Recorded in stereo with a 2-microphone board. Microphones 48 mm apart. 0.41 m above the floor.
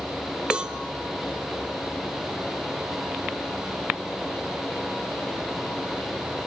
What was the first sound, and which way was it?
A cowbell, 20° right (ahead or behind).